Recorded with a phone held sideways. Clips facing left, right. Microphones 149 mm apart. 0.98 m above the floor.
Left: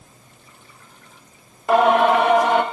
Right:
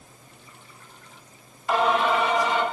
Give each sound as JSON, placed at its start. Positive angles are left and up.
{"t": 1.7, "sound": "singing", "side_deg": 60, "distance_m": 1.3}